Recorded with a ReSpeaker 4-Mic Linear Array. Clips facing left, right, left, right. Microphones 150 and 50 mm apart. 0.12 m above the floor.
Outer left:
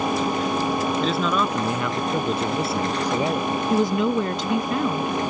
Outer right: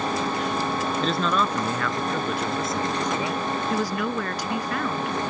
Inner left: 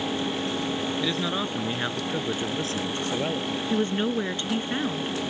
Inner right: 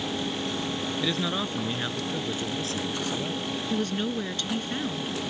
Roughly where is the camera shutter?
No camera shutter in this recording.